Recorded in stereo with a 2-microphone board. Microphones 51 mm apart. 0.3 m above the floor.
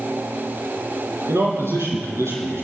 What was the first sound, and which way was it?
A man speaking, 65° right (ahead or behind).